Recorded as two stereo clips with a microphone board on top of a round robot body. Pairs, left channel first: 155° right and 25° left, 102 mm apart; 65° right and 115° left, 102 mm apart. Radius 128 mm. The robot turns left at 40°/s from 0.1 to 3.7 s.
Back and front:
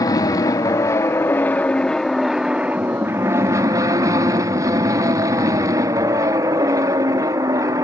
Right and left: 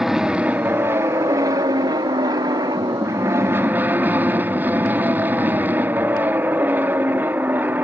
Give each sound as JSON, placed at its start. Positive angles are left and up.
{"t": 0.0, "sound": "an aircraft", "azimuth_deg": -165}